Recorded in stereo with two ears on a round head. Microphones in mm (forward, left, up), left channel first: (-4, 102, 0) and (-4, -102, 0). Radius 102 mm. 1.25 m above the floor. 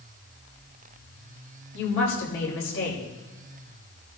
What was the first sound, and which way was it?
A woman speaking, 70° left (ahead or behind).